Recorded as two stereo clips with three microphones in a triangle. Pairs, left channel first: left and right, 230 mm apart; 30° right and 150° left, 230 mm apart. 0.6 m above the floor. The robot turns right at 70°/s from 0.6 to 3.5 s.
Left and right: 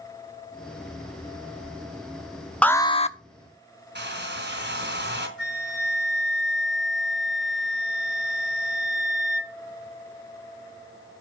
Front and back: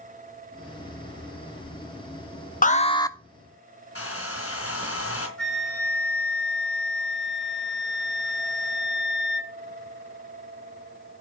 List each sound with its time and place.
2.6 s an alarm: 5° left, 0.8 m; by 3.2 s 45° left, 0.8 m
4.0 s a hair dryer: 50° right, 4 m
5.4 s a flute: 115° right, 3.5 m